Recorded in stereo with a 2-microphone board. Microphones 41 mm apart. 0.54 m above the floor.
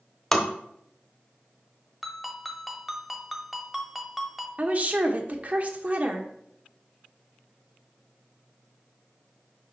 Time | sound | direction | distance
0.3 | tapping | 10° left (ahead or behind) | 0.9 m
2.0 | a ringtone | centre (ahead or behind) | 1.0 m
4.6 | a woman speaking | 40° right (ahead or behind) | 1.0 m